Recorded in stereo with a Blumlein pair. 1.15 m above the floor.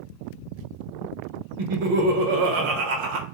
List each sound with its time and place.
1.6 s laughter: 50° right, 0.9 m